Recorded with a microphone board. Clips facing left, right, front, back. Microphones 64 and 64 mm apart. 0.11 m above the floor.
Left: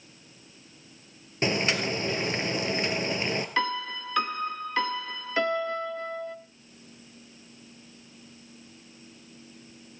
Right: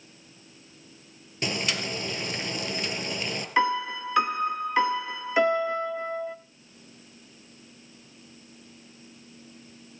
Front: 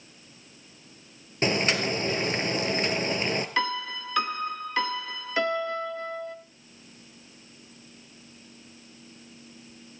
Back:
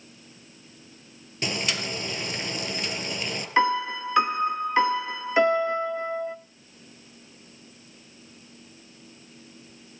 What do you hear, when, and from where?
1.4 s boiling: 40° left, 1.9 m
3.6 s a piano: 145° right, 0.6 m